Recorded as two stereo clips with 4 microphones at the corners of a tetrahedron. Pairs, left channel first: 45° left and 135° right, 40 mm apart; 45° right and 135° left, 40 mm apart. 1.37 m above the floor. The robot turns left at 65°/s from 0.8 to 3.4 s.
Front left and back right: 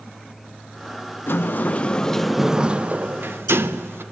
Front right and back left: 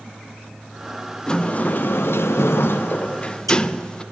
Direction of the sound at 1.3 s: 25° left.